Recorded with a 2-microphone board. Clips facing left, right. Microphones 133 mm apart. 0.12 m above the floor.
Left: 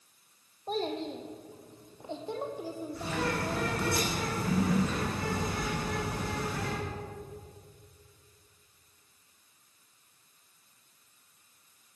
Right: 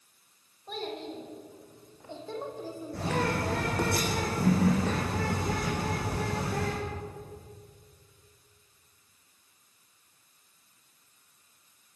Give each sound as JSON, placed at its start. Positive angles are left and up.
{"t": 0.7, "sound": "a child speaking", "side_deg": 35, "distance_m": 3.0}
{"t": 2.9, "sound": "a bird", "side_deg": -75, "distance_m": 6.0}